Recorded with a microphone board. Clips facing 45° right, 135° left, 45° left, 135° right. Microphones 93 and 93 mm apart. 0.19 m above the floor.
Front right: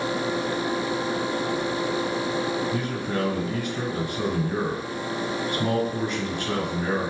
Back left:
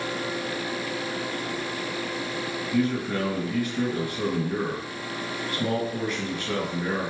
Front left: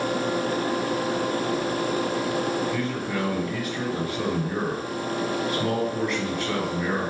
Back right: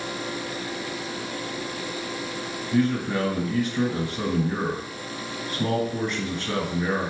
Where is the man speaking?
90° right, 1.7 m.